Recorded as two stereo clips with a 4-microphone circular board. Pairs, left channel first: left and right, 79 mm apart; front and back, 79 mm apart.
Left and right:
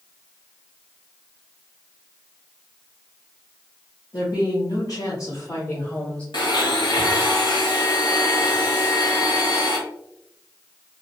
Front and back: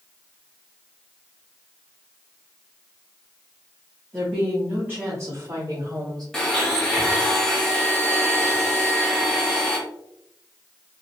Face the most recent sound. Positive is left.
turn(degrees=80)